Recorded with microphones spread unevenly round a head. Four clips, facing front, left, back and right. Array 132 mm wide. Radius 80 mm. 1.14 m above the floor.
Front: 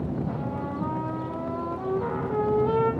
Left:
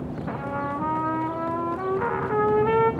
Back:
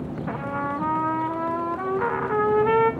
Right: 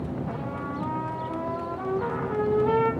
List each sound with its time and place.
0.3 s a trumpet: 170° left, 1.6 m